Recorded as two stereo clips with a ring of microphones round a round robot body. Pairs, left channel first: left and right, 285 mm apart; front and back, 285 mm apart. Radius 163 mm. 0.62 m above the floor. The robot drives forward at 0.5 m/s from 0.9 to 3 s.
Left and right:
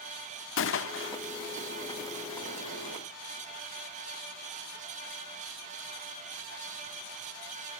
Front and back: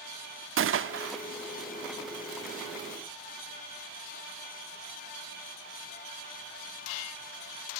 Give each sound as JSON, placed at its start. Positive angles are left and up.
{"t": 0.6, "sound": "a gunshot", "azimuth_deg": 135, "distance_m": 1.0}